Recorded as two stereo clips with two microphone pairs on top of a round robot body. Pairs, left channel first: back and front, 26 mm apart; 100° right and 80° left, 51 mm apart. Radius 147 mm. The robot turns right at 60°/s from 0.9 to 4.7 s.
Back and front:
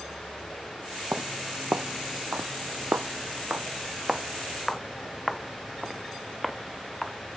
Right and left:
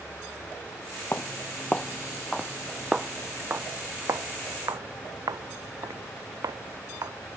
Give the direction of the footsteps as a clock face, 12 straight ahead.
2 o'clock.